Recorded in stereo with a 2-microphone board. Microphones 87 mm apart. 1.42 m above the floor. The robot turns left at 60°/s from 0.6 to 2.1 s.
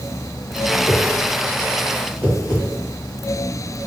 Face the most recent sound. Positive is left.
turn(degrees=15)  # may be behind; listen again after turning